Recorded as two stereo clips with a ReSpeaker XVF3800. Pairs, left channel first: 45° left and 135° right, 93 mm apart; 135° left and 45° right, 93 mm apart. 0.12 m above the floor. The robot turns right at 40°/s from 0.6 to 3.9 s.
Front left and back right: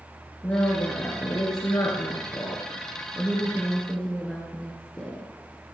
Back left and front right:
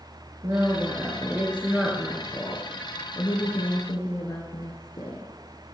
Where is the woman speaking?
15° right, 2.5 m; by 5.3 s 115° left, 2.5 m.